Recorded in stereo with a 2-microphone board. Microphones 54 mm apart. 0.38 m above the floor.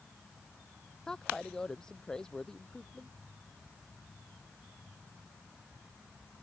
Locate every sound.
1.1 s a woman speaking: 15° left (ahead or behind)